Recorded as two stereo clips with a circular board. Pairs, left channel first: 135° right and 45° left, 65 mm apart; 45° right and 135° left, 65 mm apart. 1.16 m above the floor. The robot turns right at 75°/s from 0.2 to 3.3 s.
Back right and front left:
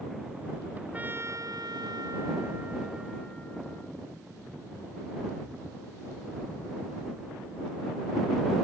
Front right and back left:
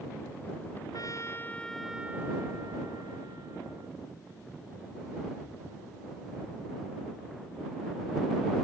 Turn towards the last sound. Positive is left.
turn(degrees=155)